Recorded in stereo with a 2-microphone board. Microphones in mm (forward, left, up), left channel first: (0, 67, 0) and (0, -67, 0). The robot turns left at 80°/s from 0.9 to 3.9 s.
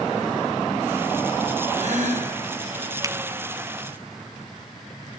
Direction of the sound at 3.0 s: 25° right (ahead or behind).